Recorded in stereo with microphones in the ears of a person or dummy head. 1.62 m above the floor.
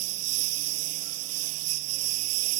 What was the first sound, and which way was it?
A lawn mower, 85° right.